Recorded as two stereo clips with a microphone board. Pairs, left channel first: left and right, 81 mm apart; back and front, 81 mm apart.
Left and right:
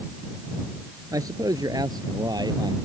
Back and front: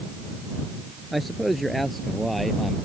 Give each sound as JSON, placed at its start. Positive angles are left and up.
{"t": 1.1, "sound": "a man speaking", "azimuth_deg": -90}